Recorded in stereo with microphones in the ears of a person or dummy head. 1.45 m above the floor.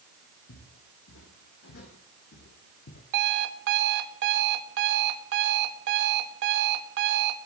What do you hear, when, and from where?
0.5 s footsteps: 70° left (ahead or behind), 4 m; by 3.0 s 55° left (ahead or behind), 3 m
3.1 s an alarm clock: 60° right (ahead or behind), 1.2 m